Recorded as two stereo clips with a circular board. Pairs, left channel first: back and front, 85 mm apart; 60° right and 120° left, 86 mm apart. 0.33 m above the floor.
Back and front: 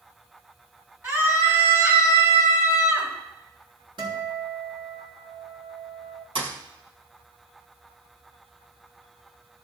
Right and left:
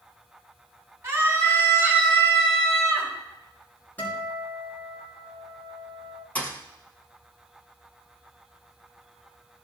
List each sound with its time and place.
1.0 s a scream: 60° left, 4 m
4.0 s a guitar: 5° left, 4.5 m
6.3 s a thud: 10° left, 1.9 m